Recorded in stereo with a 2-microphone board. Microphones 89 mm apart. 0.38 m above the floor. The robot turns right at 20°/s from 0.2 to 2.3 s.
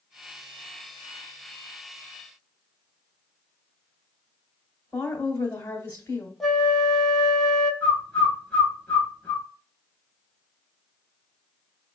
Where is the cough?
No cough in this recording.